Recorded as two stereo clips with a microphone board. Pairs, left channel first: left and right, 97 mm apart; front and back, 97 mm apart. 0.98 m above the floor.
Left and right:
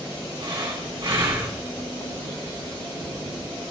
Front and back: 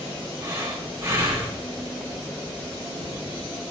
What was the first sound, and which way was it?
Breathing, 120° right.